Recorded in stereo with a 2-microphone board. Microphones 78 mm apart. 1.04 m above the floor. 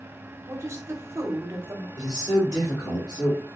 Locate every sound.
0.5 s a woman speaking: 35° right (ahead or behind), 1.0 m
2.0 s a man speaking: 60° left (ahead or behind), 2.0 m